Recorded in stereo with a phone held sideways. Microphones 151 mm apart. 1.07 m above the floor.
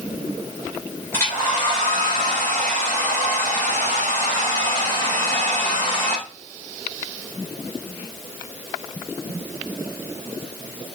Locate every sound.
1.1 s a hair dryer: 20° left (ahead or behind), 4 m